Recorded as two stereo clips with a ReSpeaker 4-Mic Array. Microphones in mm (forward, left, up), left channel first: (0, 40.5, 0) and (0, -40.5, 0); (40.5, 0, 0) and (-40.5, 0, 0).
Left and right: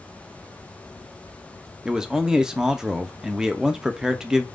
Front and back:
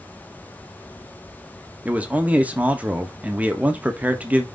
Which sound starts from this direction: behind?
A man speaking, at 1.9 s.